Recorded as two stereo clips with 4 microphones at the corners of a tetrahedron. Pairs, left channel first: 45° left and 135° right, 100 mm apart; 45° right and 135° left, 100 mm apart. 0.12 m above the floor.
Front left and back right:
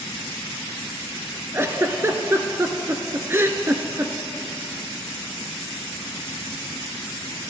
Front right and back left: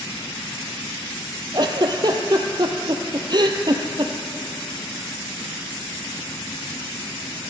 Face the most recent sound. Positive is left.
turn(degrees=165)